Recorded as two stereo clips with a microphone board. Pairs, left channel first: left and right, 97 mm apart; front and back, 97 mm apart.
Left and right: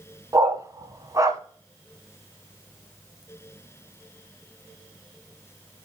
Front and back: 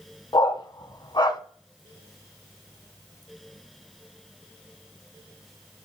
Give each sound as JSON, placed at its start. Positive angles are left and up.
{"t": 0.3, "sound": "a dog barking", "azimuth_deg": -40, "distance_m": 0.9}